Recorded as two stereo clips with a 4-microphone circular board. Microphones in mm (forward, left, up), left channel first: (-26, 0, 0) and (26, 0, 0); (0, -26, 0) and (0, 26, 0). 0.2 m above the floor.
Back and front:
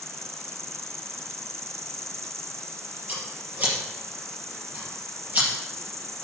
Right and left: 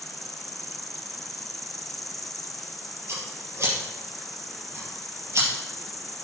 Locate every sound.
0.0 s an insect: 5° right, 0.9 m
3.1 s scissors: 55° left, 5 m